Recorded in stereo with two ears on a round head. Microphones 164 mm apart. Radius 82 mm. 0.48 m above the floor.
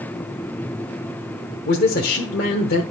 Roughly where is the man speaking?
Left.